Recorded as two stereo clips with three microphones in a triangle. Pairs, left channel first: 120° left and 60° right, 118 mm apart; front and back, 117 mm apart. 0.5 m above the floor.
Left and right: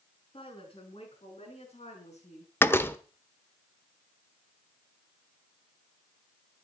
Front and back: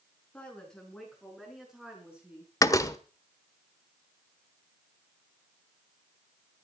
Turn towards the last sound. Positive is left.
turn(degrees=55)